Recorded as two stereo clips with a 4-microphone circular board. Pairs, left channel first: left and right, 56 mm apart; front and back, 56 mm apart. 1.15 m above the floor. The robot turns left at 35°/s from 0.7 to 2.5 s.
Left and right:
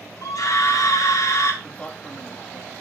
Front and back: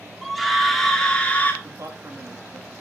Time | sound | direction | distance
0.2 | a scream | 90° left | 3 m
1.6 | a man speaking | 170° left | 2.5 m